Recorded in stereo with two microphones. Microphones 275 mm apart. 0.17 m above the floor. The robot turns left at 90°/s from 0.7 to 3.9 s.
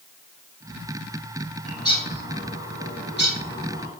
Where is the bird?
5° right (ahead or behind), 0.9 m; by 3.9 s 20° right (ahead or behind), 0.9 m.